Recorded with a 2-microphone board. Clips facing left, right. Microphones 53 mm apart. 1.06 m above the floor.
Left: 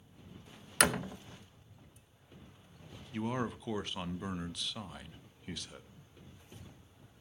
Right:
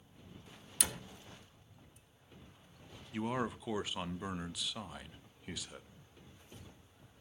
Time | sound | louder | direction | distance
0.8 | a door slam | left 13 dB | 65° left (ahead or behind) | 0.5 m
3.1 | a man speaking | even | 5° right (ahead or behind) | 0.6 m